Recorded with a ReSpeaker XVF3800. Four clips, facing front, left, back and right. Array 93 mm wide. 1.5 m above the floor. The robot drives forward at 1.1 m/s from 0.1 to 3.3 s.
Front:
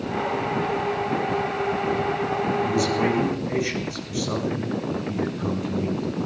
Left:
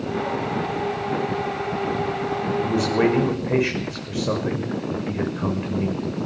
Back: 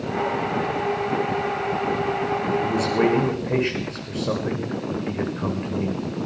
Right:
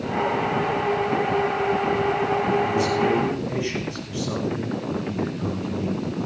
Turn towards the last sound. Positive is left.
turn(degrees=125)